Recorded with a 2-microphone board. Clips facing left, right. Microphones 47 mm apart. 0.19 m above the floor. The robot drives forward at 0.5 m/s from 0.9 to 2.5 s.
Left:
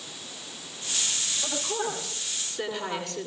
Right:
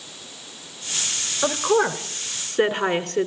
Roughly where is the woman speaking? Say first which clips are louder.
Right 12 dB; right.